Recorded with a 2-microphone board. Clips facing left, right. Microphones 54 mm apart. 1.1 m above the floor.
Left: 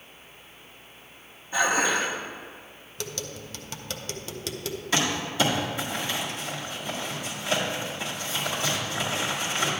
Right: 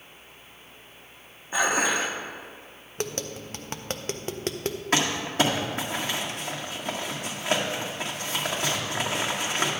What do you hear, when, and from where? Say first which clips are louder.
1.5 s dishes clattering: left 1 dB; 20° right (ahead or behind), 1.2 m
3.0 s tapping: right 4 dB; 40° right (ahead or behind), 0.6 m
4.9 s crumpling: right 1 dB; 55° right (ahead or behind), 1.7 m